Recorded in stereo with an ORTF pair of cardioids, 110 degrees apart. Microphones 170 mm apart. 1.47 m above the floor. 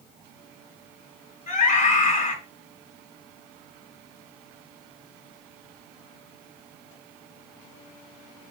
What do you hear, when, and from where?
1.5 s a scream: 45° left, 1.4 m